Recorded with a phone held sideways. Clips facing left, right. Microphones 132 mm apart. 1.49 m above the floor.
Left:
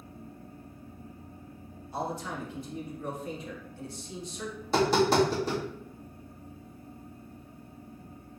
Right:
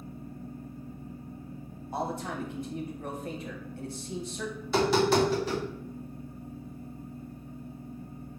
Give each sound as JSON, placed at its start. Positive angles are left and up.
{"t": 0.0, "sound": "a fan", "side_deg": -25, "distance_m": 1.7}
{"t": 1.9, "sound": "a man speaking", "side_deg": -50, "distance_m": 1.3}
{"t": 4.6, "sound": "tapping", "side_deg": 40, "distance_m": 2.0}